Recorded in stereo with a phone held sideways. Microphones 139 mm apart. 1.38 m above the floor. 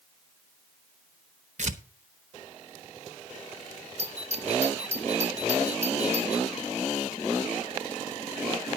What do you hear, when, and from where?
1.6 s tearing paper: 60° right (ahead or behind), 1.0 m
4.0 s a doorbell: 55° right (ahead or behind), 1.3 m